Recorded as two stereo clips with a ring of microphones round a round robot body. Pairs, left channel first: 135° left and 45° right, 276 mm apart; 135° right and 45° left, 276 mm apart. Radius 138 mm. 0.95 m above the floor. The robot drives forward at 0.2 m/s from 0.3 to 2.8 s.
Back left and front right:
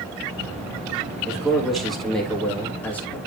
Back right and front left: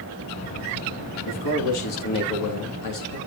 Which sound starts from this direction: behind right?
A man speaking, at 1.3 s.